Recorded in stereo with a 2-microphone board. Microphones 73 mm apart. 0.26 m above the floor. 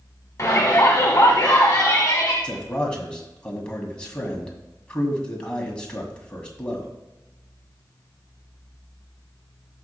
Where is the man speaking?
15° left (ahead or behind), 2.0 m.